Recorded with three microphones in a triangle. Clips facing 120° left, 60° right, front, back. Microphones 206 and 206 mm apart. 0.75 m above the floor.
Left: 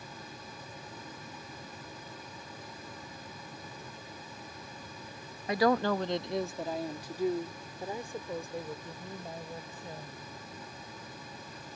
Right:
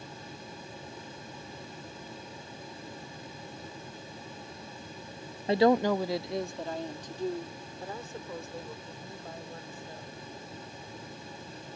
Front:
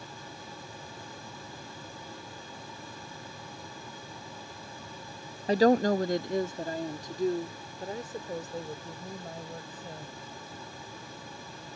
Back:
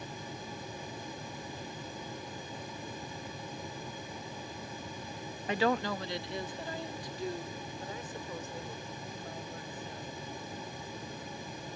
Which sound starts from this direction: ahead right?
A woman speaking, at 5.5 s.